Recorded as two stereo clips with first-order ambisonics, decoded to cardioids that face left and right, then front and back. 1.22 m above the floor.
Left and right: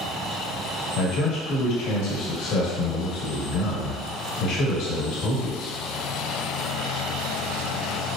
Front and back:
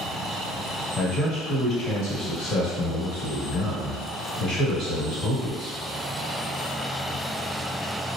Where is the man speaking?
65° left, 1.6 m.